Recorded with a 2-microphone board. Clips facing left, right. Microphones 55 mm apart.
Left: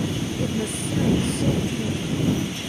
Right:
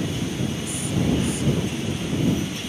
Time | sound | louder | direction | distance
0.4 | a woman speaking | left 2 dB | 50° left (ahead or behind) | ?